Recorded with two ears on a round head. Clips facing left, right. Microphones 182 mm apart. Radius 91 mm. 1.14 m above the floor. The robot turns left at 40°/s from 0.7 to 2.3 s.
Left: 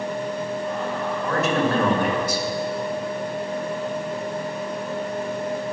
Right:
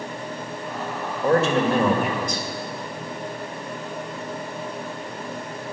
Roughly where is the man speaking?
Behind right.